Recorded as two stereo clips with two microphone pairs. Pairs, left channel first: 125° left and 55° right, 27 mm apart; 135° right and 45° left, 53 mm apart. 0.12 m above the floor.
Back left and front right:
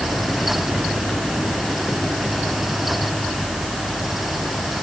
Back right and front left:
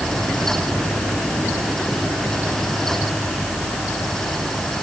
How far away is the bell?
No bell in this recording.